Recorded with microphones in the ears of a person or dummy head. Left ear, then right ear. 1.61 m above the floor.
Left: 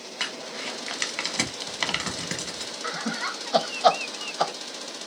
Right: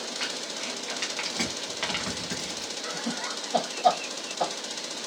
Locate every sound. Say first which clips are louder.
0.2 s crumpling: left 4 dB; 80° left, 0.8 m
2.8 s laughter: left 5 dB; 45° left (ahead or behind), 0.5 m